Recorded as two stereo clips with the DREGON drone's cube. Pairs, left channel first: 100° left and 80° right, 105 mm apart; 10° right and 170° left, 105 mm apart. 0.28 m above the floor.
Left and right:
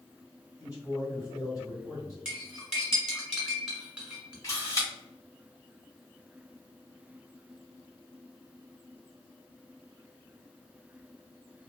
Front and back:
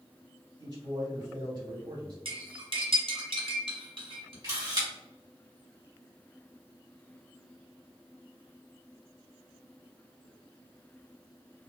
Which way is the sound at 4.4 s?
140° left.